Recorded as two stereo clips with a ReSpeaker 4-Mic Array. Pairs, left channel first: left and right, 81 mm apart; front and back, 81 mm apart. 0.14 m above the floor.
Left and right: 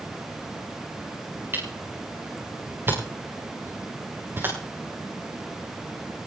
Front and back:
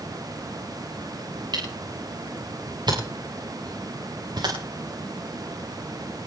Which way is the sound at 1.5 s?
150° right.